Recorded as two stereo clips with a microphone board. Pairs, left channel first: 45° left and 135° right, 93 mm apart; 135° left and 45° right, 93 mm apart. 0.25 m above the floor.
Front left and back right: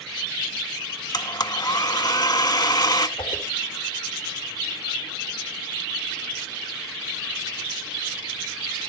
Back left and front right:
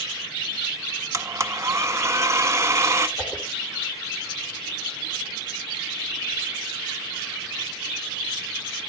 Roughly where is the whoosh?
Ahead left.